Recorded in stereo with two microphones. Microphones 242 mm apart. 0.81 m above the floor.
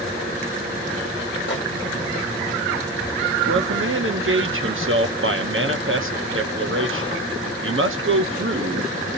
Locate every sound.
1.5 s a microwave: 50° left (ahead or behind), 1.2 m
3.5 s a man speaking: 55° right (ahead or behind), 0.9 m